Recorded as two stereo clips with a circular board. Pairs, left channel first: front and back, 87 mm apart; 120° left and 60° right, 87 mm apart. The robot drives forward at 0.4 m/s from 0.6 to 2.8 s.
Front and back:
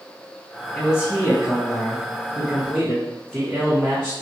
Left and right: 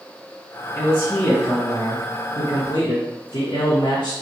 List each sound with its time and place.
0.8 s a man speaking: 60° left, 1.3 m; by 4.1 s 100° left, 1.1 m